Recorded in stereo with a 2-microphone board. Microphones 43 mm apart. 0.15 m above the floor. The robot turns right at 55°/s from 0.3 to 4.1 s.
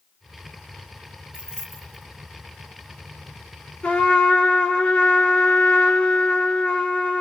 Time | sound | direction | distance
1.3 | keys jangling | 25° right (ahead or behind) | 2 m
3.8 | a trumpet | 30° left (ahead or behind) | 2.5 m